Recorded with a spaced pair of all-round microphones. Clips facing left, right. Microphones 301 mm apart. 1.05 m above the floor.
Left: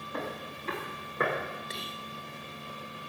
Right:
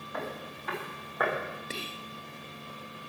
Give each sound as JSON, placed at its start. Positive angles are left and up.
{"t": 0.1, "sound": "footsteps", "side_deg": 35, "distance_m": 9.5}
{"t": 1.7, "sound": "whispering", "side_deg": -35, "distance_m": 0.7}